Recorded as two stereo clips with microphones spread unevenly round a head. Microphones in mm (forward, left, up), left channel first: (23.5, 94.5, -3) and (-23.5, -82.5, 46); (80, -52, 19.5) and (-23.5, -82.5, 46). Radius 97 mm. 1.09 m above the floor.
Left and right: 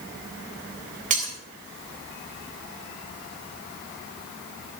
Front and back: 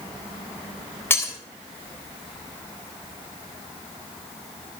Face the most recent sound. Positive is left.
turn(degrees=-55)